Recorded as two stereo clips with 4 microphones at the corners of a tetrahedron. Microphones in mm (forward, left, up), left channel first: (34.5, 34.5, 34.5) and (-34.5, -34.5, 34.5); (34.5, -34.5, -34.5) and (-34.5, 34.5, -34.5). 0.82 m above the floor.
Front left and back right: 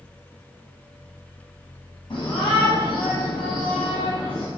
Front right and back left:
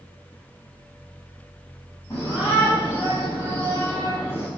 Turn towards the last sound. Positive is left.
turn(degrees=20)